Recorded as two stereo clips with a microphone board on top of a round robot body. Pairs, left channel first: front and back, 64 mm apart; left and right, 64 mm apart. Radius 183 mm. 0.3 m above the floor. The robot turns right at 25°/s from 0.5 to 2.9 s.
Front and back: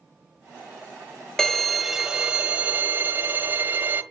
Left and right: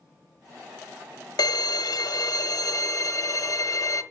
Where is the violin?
85° left, 1.1 m; by 4.0 s 120° left, 1.1 m.